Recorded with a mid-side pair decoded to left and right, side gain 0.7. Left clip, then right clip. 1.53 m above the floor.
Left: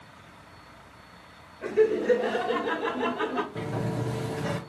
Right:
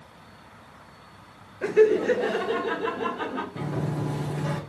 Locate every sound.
1.6 s laughter: 40° right, 0.9 m; by 3.5 s 20° left, 1.3 m
3.5 s a sliding door: 10° left, 1.4 m